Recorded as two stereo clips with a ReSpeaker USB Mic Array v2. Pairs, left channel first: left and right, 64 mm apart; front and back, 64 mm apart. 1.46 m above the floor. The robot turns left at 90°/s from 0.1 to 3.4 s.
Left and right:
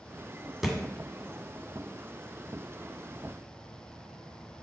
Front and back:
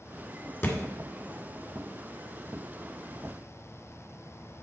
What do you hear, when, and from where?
0.6 s a thud: 5° right, 1.6 m; by 0.8 s 20° right, 1.6 m